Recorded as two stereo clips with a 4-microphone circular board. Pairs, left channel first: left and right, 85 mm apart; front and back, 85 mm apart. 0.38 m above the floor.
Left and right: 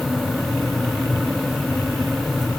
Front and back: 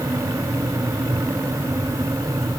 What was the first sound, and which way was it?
Only background noise.